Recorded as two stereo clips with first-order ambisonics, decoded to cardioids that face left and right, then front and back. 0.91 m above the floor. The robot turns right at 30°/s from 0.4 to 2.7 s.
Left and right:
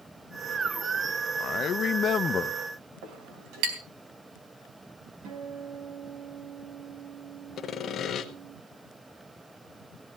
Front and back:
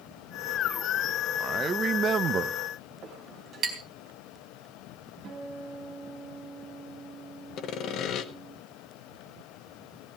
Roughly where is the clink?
Behind right.